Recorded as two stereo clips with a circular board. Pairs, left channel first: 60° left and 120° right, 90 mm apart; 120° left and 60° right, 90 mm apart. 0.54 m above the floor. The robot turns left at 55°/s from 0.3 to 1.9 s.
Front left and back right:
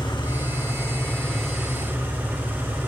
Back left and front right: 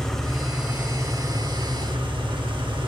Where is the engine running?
35° left, 2.5 m; by 2.9 s 55° right, 2.5 m.